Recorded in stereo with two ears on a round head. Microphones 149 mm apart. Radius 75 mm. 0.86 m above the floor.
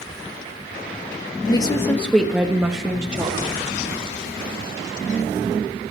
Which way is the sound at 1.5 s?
30° left (ahead or behind).